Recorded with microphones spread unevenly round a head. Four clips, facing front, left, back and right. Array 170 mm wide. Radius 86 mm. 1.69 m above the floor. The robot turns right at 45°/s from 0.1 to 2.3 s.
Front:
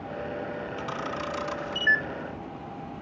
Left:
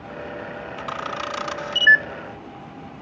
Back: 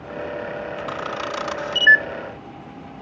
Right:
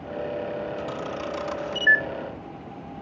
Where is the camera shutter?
85° left, 0.8 m; by 2.0 s 145° left, 0.8 m.